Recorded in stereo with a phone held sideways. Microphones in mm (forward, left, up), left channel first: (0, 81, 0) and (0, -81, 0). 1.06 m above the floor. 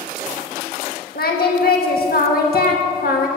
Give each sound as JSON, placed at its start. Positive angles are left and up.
{"t": 1.1, "sound": "singing", "side_deg": 75, "distance_m": 1.4}